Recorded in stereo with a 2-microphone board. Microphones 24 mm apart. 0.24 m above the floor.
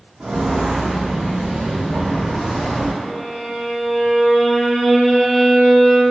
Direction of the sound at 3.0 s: 5° left (ahead or behind).